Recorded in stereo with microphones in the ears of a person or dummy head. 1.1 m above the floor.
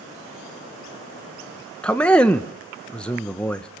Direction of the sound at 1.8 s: 5° left (ahead or behind).